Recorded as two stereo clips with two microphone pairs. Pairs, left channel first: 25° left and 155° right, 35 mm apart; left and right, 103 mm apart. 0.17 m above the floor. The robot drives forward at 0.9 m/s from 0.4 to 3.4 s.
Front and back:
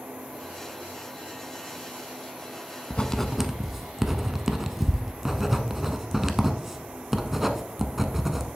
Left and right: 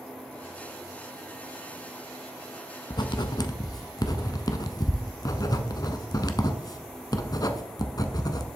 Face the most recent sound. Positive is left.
turn(degrees=125)